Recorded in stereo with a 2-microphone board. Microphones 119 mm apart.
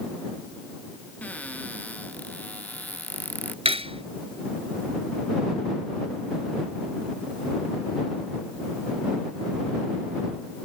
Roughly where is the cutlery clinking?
Right.